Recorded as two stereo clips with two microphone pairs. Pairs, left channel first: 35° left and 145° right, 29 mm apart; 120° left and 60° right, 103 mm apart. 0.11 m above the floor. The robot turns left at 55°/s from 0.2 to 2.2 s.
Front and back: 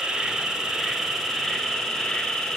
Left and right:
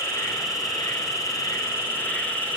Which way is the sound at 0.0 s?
160° left.